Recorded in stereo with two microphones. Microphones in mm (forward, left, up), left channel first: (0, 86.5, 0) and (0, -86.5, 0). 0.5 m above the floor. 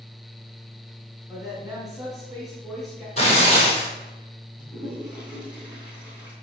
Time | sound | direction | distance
1.3 | a woman speaking | 5° left (ahead or behind) | 3.5 m
3.2 | tearing paper | 40° left (ahead or behind) | 3 m
4.6 | a toilet flushing | 5° right (ahead or behind) | 3.5 m